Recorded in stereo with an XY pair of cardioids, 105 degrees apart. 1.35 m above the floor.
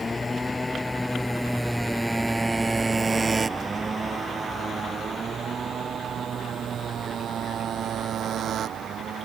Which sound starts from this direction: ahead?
A motorcycle, at 0.0 s.